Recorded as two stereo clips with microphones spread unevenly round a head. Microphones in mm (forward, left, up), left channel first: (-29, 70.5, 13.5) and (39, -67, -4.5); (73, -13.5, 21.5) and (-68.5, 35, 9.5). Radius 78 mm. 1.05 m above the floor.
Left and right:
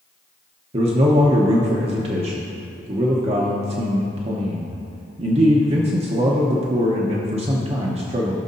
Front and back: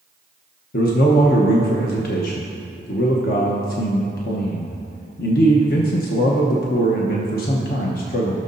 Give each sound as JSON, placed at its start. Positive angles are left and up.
{"t": 0.7, "sound": "a man speaking", "azimuth_deg": -25, "distance_m": 0.9}